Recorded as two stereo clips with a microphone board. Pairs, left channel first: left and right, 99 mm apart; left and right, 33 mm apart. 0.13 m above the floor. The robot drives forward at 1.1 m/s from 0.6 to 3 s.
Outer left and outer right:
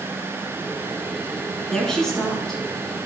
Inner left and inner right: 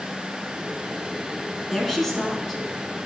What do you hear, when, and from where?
1.7 s a woman speaking: 5° left (ahead or behind), 1.4 m